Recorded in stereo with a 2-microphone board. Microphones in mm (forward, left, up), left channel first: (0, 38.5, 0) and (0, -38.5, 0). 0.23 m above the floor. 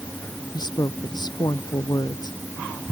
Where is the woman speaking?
65° left (ahead or behind).